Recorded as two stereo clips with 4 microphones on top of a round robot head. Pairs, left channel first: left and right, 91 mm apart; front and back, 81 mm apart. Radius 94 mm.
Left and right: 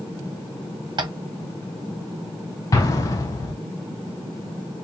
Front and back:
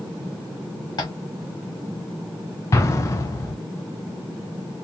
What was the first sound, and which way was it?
Tapping, 50° right.